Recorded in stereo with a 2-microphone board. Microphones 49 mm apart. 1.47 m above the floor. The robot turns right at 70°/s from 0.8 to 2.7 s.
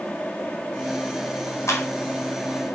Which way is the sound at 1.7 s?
75° left (ahead or behind).